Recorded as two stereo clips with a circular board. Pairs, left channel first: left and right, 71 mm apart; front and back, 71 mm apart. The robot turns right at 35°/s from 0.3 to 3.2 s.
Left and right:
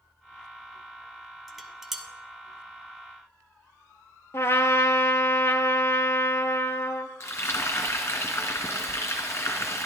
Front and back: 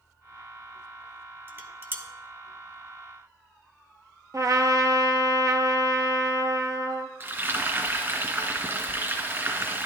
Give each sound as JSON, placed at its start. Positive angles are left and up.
{"t": 1.5, "sound": "dishes clattering", "azimuth_deg": 175, "distance_m": 0.8}
{"t": 4.3, "sound": "a trumpet", "azimuth_deg": 140, "distance_m": 0.6}
{"t": 7.2, "sound": "frying", "azimuth_deg": 135, "distance_m": 1.8}